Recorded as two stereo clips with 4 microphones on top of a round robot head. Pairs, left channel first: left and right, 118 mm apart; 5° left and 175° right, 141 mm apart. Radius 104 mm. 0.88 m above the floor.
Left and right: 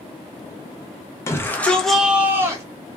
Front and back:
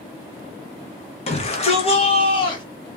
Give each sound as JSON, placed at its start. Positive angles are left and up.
{"t": 1.3, "sound": "a shout", "azimuth_deg": 30, "distance_m": 1.1}